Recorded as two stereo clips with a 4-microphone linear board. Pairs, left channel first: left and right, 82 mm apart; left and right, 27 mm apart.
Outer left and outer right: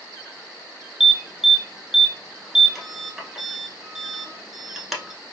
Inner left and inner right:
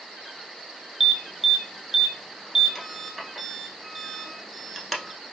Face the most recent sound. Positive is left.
turn(degrees=0)  # may be behind; listen again after turning